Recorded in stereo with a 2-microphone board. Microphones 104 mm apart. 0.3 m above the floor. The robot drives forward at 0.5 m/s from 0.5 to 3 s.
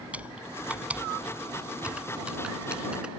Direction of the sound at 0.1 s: 15° right (ahead or behind).